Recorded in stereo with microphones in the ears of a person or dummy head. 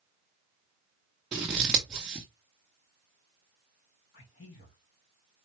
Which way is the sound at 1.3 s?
Centre (ahead or behind).